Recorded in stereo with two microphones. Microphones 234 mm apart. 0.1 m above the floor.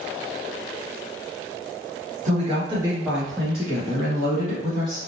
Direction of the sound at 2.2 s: 30° right (ahead or behind).